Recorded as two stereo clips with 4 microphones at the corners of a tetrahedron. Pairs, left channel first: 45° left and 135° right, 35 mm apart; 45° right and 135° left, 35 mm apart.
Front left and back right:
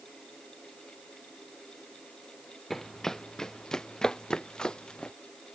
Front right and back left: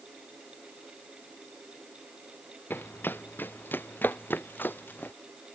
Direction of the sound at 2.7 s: 35° right.